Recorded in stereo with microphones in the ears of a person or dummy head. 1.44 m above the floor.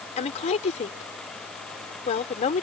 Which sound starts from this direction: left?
A woman speaking, at 0.2 s.